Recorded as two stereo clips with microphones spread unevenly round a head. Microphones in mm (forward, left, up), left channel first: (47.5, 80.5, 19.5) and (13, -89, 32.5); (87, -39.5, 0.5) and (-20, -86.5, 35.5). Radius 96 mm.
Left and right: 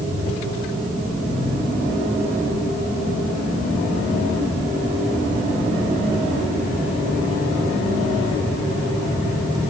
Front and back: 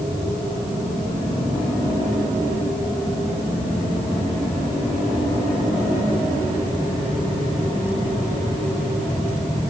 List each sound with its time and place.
Only background noise.